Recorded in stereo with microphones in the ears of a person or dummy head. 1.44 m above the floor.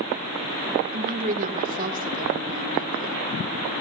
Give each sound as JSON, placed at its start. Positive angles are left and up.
{"t": 0.9, "sound": "a woman speaking", "side_deg": -40, "distance_m": 1.4}